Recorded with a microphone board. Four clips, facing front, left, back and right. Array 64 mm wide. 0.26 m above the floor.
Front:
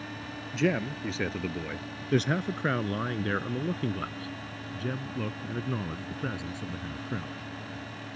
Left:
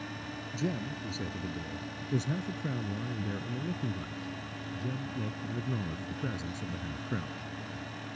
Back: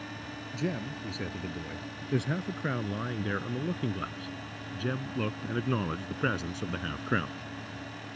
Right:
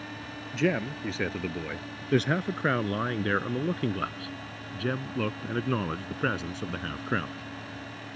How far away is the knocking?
I don't hear knocking.